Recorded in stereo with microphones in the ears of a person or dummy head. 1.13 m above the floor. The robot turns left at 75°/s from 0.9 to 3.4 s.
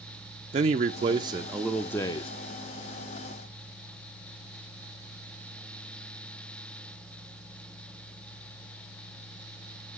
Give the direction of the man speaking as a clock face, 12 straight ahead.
4 o'clock.